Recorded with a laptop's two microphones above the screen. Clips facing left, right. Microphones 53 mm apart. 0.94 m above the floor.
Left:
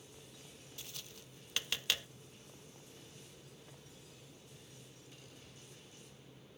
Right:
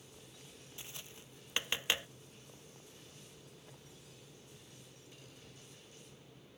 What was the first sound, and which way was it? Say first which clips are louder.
Tapping: right 1 dB; 20° right (ahead or behind).